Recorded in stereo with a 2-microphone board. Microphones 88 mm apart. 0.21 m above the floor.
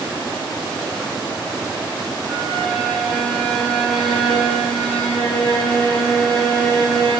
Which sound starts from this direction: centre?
A violin, at 2.3 s.